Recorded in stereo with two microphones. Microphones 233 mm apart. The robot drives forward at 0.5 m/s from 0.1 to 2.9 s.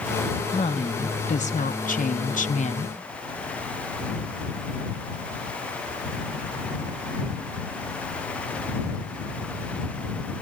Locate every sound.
0.5 s a woman speaking: 25° left (ahead or behind), 1.0 m; by 2.9 s 30° left (ahead or behind), 0.8 m